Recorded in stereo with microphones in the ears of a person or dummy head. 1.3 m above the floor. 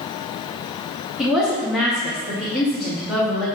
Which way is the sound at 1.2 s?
5° right (ahead or behind).